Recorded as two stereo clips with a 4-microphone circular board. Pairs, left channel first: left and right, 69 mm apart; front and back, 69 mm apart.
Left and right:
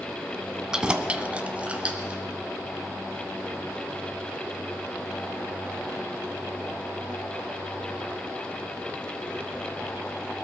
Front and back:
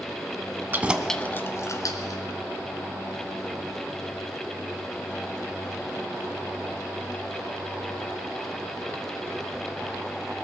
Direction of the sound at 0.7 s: 160° right.